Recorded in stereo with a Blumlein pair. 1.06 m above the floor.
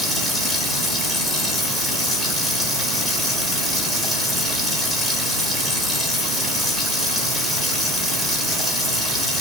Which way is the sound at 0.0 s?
5° right.